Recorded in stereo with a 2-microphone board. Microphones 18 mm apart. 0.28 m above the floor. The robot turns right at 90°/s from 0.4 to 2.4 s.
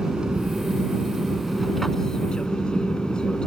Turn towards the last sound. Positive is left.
turn(degrees=65)